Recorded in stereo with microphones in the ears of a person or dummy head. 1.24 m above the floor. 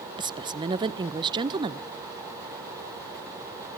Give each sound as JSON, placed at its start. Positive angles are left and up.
{"t": 0.2, "sound": "a woman speaking", "side_deg": -20, "distance_m": 0.7}